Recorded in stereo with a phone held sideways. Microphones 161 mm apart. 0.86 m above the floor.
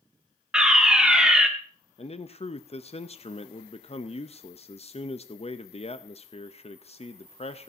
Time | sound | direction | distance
0.5 | a fire alarm | 5° right (ahead or behind) | 1.4 m
2.0 | a man speaking | 40° left (ahead or behind) | 0.5 m